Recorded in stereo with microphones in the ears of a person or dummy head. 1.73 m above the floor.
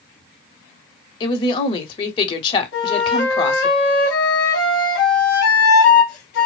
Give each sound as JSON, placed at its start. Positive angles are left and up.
{"t": 1.2, "sound": "a woman speaking", "side_deg": 30, "distance_m": 0.9}
{"t": 2.7, "sound": "a flute", "side_deg": 60, "distance_m": 1.1}